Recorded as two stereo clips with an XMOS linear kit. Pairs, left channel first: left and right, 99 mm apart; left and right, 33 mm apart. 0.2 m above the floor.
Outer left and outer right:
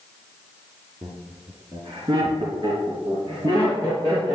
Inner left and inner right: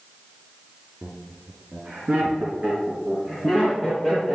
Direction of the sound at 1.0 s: 55° right (ahead or behind).